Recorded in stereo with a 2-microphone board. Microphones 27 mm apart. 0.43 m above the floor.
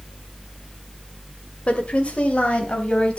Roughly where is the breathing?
I don't hear breathing.